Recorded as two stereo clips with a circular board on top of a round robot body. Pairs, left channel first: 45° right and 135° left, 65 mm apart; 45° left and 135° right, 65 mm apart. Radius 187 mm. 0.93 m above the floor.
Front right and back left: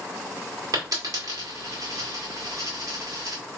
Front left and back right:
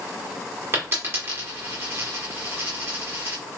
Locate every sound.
0.7 s a dropped coin: 170° left, 1.6 m